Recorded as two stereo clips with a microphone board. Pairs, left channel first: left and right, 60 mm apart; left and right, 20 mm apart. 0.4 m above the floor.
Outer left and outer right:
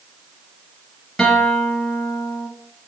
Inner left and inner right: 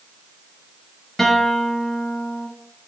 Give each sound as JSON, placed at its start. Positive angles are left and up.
{"t": 1.2, "sound": "a guitar", "side_deg": 5, "distance_m": 1.0}